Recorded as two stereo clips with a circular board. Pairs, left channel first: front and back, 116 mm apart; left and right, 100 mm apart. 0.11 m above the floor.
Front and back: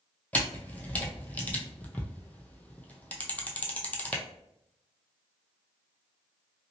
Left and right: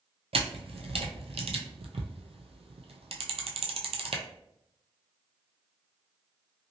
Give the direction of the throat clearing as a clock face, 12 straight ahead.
No throat clearing in this recording.